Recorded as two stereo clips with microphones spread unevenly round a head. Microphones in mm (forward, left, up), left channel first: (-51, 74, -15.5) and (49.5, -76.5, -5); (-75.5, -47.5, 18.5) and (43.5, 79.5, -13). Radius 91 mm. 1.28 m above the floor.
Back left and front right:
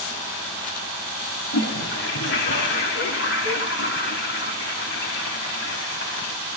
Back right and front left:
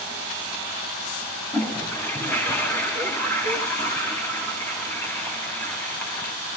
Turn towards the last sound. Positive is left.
turn(degrees=150)